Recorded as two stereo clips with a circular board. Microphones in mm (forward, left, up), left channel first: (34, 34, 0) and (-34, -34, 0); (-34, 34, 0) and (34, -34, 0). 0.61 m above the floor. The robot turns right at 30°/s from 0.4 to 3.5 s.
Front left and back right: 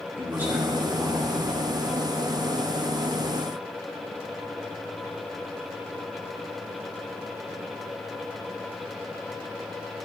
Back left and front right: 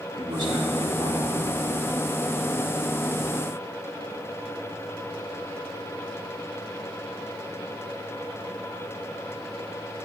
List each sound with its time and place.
0.2 s a man speaking: 70° right, 1.8 m; by 1.7 s 30° right, 1.8 m